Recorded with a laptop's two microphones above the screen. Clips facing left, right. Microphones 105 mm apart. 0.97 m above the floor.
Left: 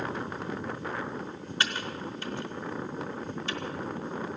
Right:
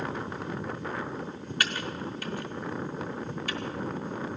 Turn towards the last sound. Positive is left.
turn(degrees=25)  # may be behind; listen again after turning